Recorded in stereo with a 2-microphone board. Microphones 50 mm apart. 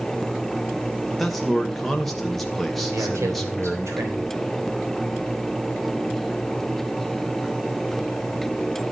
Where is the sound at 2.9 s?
75° right (ahead or behind), 3.5 m.